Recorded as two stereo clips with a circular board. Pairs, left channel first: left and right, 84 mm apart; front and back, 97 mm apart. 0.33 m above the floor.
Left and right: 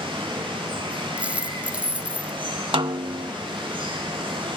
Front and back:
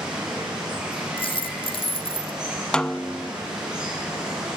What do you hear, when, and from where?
0.0 s running water: 100° right, 5.5 m
1.2 s a dropped coin: 15° right, 0.9 m
2.7 s a snare drum: 80° right, 0.5 m